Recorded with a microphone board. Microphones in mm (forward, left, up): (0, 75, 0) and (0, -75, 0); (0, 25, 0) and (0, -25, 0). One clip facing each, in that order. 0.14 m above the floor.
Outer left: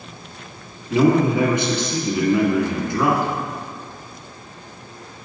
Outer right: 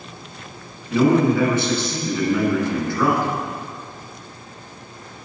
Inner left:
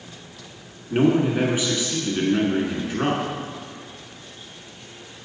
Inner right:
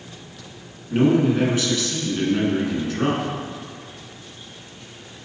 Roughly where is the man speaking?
Centre.